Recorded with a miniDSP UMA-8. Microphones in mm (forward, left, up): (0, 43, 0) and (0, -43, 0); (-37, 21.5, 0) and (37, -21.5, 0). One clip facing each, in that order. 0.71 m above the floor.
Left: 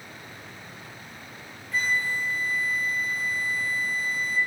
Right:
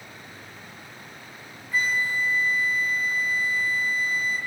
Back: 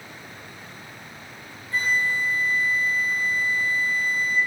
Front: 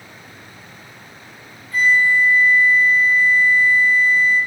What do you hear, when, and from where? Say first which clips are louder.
1.7 s a flute: right 2 dB, front 8 dB; 165° right, 1.2 m